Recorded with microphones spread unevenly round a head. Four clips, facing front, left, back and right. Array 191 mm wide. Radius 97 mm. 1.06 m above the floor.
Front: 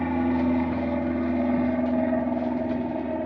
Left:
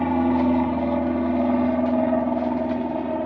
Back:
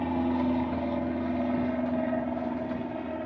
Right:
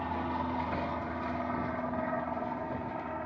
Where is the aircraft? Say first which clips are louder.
Left 14 dB, front 4 dB; 70° left; by 3.3 s 60° left.